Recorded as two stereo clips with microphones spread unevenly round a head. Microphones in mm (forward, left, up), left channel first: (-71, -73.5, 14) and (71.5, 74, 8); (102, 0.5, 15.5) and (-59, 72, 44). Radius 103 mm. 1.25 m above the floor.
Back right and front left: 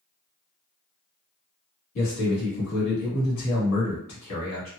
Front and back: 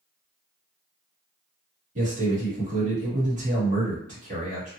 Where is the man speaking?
150° right, 1.6 m.